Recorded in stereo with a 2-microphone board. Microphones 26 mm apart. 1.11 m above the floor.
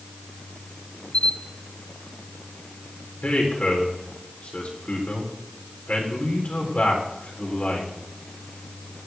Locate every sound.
1.1 s a camera shutter: 50° left (ahead or behind), 1.3 m
3.2 s a man speaking: 65° left (ahead or behind), 4 m